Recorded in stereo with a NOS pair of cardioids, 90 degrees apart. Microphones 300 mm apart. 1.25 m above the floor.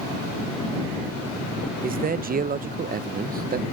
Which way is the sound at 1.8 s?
30° right.